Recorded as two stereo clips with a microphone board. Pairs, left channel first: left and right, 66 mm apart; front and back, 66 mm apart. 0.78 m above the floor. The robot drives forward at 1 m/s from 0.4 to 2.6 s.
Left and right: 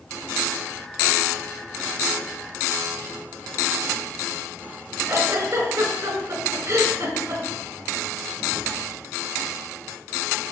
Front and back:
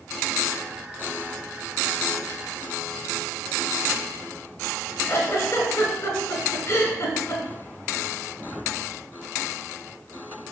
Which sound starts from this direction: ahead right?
A giggle, at 5.1 s.